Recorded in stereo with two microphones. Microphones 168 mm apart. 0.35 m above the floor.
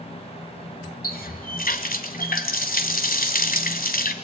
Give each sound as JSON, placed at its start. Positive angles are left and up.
{"t": 1.0, "sound": "a running tap", "side_deg": 60, "distance_m": 1.8}